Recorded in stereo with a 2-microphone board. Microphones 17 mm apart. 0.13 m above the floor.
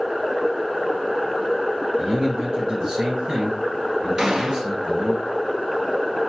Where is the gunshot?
35° right (ahead or behind), 1.0 m.